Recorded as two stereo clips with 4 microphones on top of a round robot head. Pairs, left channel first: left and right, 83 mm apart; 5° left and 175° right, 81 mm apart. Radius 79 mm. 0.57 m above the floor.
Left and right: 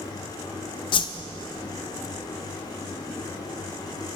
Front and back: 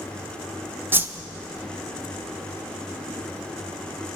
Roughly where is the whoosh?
Behind left.